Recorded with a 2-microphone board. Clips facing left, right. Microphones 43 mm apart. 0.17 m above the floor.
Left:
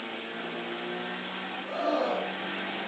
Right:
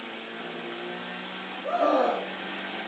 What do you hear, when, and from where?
1.6 s a scream: 75° right (ahead or behind), 4.5 m